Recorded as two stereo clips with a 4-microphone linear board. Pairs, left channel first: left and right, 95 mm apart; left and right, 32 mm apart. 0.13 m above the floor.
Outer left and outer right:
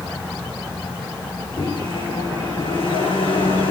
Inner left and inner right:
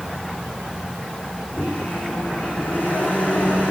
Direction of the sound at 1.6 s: 70° left (ahead or behind).